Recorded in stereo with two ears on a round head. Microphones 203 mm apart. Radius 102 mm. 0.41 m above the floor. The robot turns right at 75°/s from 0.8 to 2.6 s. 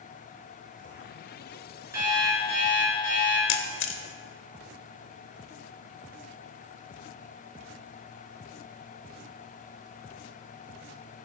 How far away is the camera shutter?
About 0.8 m.